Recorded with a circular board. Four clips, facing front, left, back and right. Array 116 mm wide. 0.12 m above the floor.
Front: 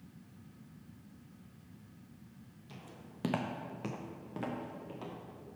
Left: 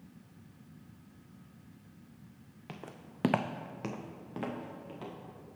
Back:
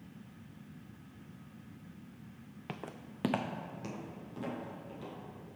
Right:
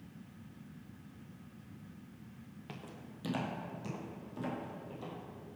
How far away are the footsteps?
About 0.6 m.